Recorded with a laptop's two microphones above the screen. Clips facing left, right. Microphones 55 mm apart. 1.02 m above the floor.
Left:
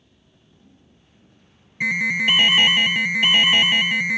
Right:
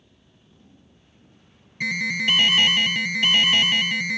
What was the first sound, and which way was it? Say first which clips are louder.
An alarm: left 4 dB; 20° left (ahead or behind).